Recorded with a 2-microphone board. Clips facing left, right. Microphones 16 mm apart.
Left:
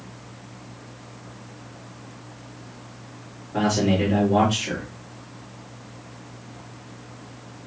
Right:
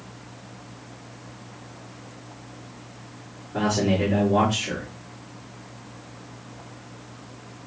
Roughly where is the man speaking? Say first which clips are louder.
Left 1 dB; left.